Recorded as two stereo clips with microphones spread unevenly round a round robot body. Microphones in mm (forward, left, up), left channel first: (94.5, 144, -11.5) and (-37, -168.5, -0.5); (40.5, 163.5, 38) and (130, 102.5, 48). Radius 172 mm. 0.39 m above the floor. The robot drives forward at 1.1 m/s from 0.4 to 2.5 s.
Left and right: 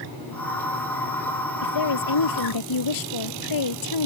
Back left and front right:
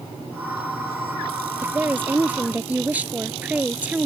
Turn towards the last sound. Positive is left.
turn(degrees=40)